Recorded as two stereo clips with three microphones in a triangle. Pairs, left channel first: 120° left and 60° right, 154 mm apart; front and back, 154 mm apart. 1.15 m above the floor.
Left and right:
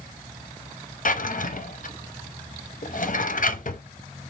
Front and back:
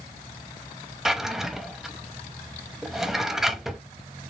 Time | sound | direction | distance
1.1 | a drawer | 90° left | 0.6 m